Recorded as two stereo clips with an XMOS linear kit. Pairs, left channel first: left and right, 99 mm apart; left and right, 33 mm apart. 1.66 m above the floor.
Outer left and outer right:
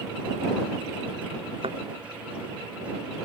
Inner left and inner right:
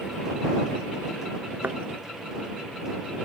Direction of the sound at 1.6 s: 65° right (ahead or behind).